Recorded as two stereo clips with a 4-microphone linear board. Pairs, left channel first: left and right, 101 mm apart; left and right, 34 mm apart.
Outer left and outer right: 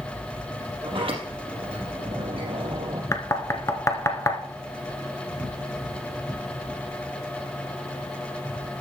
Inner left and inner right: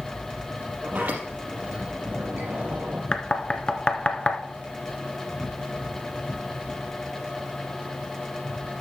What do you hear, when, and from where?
0.8 s a sliding door: 55° right (ahead or behind), 3.5 m
3.1 s knocking: 25° left (ahead or behind), 1.0 m